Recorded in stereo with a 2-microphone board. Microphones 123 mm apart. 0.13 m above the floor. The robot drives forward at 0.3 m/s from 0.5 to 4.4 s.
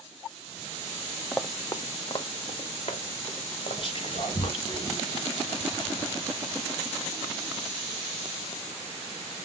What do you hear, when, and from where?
1.3 s running footsteps: centre (ahead or behind), 0.7 m; by 4.6 s 60° left (ahead or behind), 4 m
3.8 s whispering: 40° left (ahead or behind), 2.5 m